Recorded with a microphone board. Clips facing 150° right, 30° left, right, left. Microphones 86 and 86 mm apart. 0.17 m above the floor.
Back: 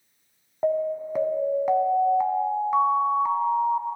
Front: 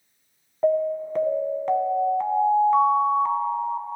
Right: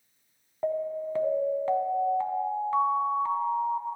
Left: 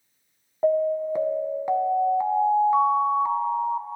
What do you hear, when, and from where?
0.6 s an alarm: 140° left, 0.8 m